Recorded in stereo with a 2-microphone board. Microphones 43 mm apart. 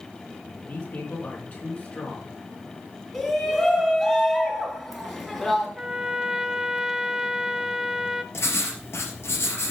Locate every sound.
0.6 s a man speaking: 40° left (ahead or behind), 4 m
3.1 s a shout: 15° left (ahead or behind), 2.5 m
5.8 s a trumpet: 15° right (ahead or behind), 0.6 m
8.3 s writing: 75° left (ahead or behind), 3.5 m